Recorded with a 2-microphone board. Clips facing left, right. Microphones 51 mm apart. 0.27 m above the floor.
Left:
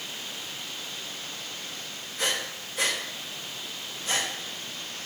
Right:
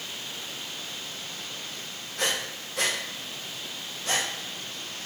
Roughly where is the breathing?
Right.